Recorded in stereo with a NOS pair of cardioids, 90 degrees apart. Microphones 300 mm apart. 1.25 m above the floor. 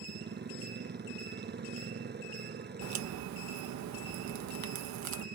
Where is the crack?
65° right.